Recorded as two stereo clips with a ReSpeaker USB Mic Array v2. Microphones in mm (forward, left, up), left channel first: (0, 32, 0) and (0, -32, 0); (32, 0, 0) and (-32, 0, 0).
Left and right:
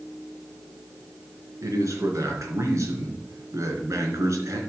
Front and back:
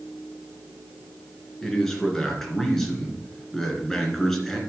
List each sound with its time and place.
1.6 s a man speaking: 85° right, 2.5 m